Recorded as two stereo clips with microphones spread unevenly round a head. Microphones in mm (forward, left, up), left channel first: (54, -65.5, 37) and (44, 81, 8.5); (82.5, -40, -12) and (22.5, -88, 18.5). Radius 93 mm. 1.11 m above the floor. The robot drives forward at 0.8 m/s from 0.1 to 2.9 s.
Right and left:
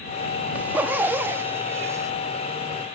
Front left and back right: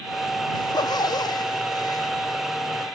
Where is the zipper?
15° left; by 2.1 s 30° left.